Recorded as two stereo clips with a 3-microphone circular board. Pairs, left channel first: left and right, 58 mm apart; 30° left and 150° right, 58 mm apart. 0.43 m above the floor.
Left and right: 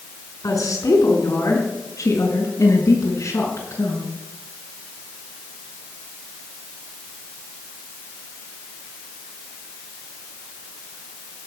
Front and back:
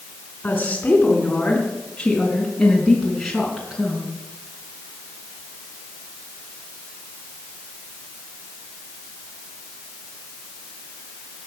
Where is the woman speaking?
95° left, 3.5 m; by 4.1 s 125° left, 4.5 m.